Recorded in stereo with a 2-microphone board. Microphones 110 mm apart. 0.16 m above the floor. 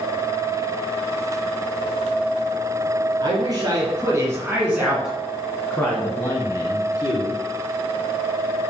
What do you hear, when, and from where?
3.2 s a man speaking: 40° right (ahead or behind), 2.5 m; by 7.3 s 40° left (ahead or behind), 2.5 m